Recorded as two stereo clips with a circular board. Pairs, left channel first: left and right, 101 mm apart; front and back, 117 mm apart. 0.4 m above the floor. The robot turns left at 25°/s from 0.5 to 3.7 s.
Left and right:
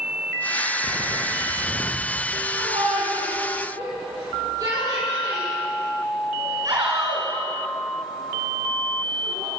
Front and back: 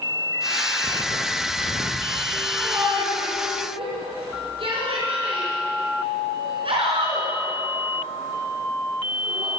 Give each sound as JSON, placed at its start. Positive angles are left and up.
{"t": 0.8, "sound": "footsteps", "azimuth_deg": -130, "distance_m": 1.3}
{"t": 2.5, "sound": "a shout", "azimuth_deg": -115, "distance_m": 4.5}